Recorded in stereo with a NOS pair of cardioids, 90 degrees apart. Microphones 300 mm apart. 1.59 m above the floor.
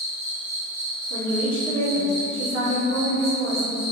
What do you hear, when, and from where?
0.0 s an insect: 65° right, 1.1 m
1.1 s a woman speaking: 45° right, 1.3 m